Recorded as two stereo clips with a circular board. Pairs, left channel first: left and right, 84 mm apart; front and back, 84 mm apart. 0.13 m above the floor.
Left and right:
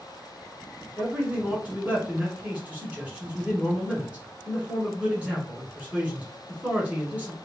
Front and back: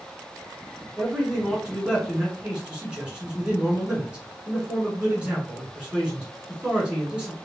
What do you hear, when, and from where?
1.0 s a man speaking: 130° right, 1.4 m